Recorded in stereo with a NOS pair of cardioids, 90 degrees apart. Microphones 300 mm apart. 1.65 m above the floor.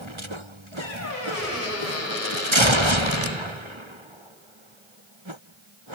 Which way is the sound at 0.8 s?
65° left.